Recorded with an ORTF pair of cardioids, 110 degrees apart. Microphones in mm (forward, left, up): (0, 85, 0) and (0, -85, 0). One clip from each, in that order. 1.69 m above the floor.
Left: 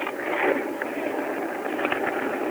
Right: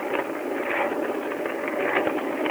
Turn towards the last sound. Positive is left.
No sound to turn to.